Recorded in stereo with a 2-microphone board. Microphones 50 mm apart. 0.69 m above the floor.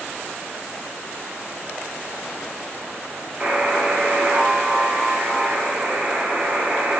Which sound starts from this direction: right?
A buzzer, at 3.4 s.